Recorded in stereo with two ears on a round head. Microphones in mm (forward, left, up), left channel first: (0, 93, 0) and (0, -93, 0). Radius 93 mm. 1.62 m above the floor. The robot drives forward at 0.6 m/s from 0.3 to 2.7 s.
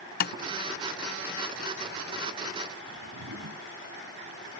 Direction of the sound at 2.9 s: 75° right (ahead or behind).